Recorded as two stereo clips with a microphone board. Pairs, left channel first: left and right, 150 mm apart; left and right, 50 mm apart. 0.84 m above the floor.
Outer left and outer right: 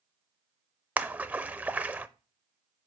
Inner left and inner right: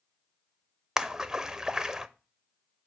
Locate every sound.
1.0 s a splash: 10° right (ahead or behind), 0.6 m